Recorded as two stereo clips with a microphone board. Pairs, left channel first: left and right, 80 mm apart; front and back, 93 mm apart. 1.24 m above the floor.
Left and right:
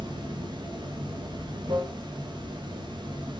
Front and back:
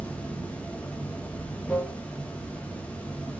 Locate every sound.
0.0 s running water: 75° right, 1.5 m